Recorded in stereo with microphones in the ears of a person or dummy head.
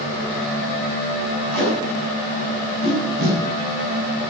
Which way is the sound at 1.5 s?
45° right (ahead or behind).